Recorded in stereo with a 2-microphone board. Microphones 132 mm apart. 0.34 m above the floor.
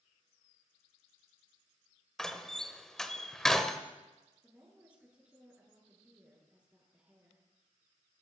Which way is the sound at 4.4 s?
10° right (ahead or behind).